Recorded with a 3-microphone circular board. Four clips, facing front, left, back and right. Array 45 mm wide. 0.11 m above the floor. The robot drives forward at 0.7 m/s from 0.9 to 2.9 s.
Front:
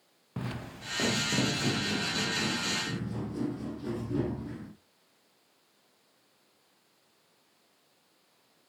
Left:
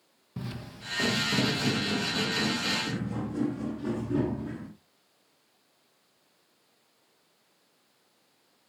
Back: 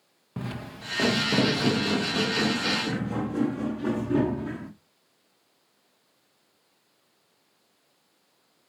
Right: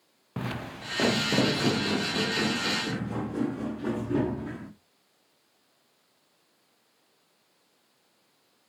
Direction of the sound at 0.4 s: 90° right.